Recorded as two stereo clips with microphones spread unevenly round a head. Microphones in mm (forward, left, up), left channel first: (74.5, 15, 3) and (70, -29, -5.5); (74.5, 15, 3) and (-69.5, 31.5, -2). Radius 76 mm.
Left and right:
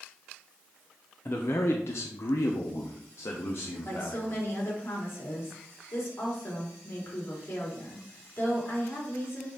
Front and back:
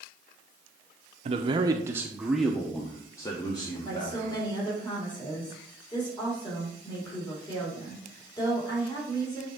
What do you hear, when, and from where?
1.2 s a man speaking: 140° left, 0.7 m; by 4.5 s 50° left, 1.6 m
3.9 s a woman speaking: 55° left, 3 m